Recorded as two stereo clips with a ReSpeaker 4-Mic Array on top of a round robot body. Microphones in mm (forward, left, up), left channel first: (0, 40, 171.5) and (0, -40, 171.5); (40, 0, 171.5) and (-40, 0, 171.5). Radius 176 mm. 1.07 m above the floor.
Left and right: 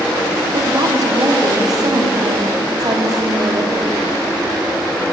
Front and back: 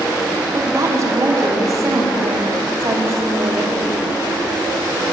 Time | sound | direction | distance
0.5 | a woman speaking | 130° right | 3.5 m